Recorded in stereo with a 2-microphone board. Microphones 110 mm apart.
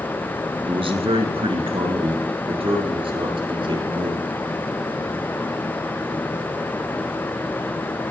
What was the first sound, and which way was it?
A man speaking, 60° right (ahead or behind).